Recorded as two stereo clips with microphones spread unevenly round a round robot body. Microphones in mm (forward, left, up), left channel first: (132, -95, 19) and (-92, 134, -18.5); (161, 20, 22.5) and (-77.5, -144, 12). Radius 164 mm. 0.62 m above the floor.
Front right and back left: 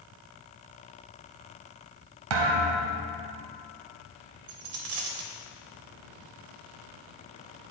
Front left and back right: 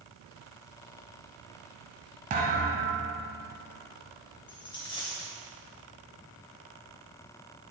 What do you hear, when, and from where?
2.3 s a thud: 150° left, 0.8 m
4.5 s a dropped coin: 110° left, 0.9 m